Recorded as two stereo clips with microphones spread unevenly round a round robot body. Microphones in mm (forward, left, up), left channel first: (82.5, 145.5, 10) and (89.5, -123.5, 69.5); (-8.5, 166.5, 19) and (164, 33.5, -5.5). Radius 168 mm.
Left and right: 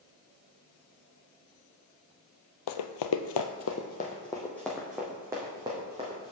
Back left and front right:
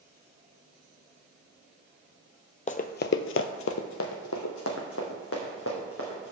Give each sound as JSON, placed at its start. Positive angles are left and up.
{"t": 2.7, "sound": "running footsteps", "azimuth_deg": 85, "distance_m": 0.7}